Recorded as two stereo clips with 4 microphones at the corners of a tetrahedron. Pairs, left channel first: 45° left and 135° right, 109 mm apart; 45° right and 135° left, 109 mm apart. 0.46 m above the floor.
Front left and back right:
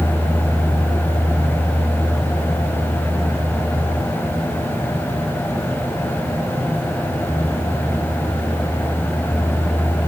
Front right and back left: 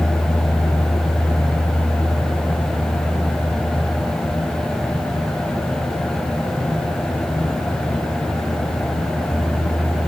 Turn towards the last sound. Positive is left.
No sound to turn to.